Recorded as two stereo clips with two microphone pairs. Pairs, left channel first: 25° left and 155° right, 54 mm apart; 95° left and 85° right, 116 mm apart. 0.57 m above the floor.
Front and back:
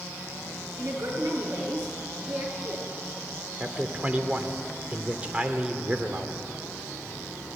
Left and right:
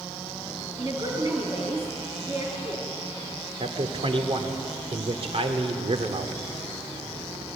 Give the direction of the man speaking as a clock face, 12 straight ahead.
3 o'clock.